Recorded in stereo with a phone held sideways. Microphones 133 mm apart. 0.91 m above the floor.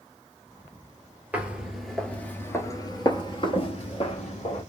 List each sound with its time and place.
1.3 s footsteps: 10° right (ahead or behind), 1.1 m; by 4.6 s 55° left (ahead or behind), 1.5 m